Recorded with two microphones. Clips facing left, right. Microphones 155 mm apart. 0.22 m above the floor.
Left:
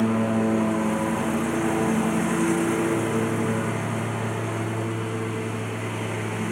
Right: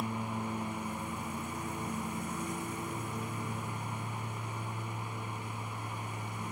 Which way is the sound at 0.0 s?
85° left.